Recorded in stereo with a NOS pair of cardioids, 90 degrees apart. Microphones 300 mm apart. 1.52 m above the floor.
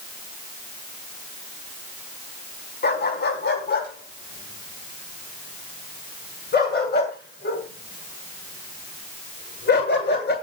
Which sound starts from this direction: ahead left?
A dog barking, at 2.8 s.